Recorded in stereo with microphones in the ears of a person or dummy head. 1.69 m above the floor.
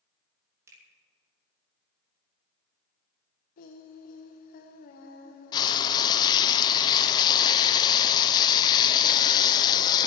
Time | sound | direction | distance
0.7 | a finger snap | 15° right (ahead or behind) | 3 m
3.6 | singing | 45° left (ahead or behind) | 1.0 m
5.5 | frying | 25° left (ahead or behind) | 0.6 m